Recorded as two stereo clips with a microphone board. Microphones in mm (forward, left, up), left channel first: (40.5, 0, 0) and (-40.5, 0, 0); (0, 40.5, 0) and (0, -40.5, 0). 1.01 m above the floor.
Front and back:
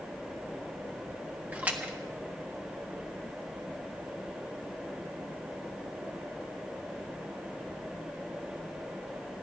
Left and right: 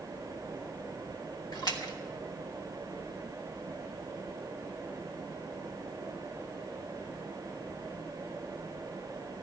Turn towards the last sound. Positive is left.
turn(degrees=110)